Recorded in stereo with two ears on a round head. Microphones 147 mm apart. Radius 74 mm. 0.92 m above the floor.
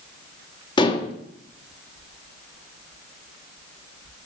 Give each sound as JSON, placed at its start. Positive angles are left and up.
{"t": 0.8, "sound": "dishes clattering", "side_deg": 30, "distance_m": 0.9}